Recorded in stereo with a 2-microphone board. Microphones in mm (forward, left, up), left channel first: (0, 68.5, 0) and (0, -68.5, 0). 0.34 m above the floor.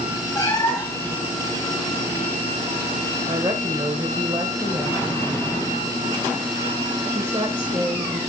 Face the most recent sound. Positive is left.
turn(degrees=-35)  # may be behind; listen again after turning